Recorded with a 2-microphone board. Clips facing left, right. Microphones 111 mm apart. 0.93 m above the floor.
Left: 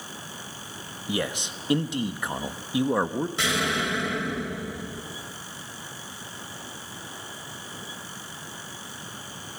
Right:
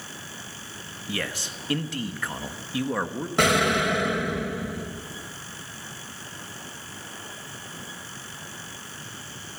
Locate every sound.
1.1 s a man speaking: 20° left (ahead or behind), 1.0 m
3.4 s an explosion: 60° right (ahead or behind), 3 m